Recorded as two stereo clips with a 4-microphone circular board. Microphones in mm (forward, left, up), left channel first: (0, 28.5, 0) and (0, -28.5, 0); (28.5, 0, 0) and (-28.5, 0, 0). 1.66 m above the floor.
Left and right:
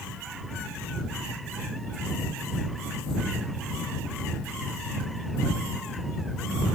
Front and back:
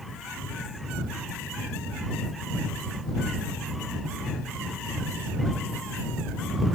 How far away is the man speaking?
I don't hear a man speaking.